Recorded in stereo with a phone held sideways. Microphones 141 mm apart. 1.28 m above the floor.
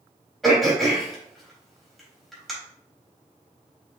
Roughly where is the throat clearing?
Centre.